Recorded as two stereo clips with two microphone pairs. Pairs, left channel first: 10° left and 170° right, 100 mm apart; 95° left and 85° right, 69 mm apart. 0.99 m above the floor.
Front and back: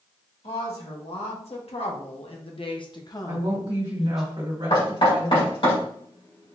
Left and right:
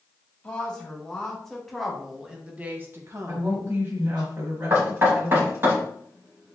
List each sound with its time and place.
0.4 s a woman speaking: 20° left, 1.9 m; by 4.3 s 85° right, 1.0 m
3.3 s a woman speaking: 145° right, 1.7 m
4.7 s knocking: 30° right, 2.5 m